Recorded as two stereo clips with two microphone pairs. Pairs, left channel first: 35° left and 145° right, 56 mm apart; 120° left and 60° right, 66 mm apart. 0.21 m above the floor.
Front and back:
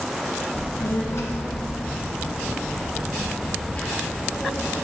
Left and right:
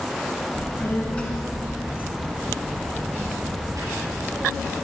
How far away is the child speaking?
About 1.6 m.